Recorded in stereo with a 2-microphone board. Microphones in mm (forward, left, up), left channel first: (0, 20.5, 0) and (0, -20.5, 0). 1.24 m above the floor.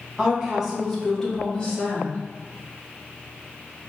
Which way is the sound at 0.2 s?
15° right (ahead or behind).